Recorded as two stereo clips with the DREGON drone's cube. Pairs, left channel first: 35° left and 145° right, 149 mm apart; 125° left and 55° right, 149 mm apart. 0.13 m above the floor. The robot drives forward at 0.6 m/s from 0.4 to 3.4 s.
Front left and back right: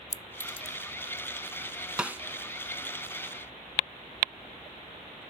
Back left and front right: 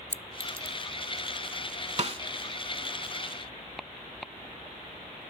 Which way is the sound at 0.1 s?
125° right.